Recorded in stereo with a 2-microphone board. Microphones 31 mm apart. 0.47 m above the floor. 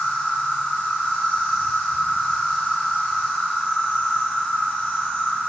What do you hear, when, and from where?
0.0 s an insect: 85° left, 1.6 m